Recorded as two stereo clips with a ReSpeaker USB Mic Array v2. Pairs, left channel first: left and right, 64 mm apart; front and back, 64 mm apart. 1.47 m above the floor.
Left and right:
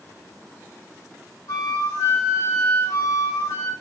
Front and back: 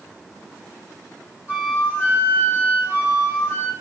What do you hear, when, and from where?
1.5 s a flute: 120° left, 2 m